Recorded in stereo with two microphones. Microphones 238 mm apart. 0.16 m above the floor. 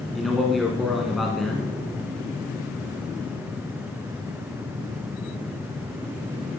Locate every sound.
0.1 s a man speaking: centre (ahead or behind), 1.3 m